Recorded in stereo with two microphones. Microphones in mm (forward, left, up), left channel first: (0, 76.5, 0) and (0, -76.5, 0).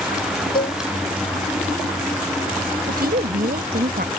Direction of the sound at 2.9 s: 80° right.